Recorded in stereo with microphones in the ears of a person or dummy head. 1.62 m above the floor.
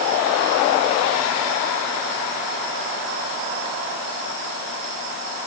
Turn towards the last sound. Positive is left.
No sound to turn to.